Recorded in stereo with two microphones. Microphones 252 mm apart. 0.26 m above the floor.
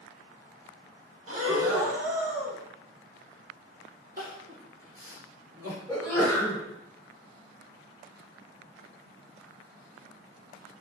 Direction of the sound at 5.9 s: 15° left (ahead or behind).